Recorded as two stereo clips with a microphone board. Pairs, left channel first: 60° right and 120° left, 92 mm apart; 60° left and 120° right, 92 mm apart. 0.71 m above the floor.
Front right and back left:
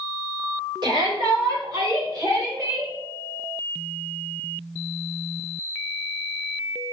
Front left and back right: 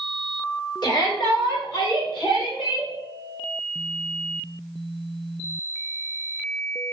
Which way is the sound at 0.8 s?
90° left.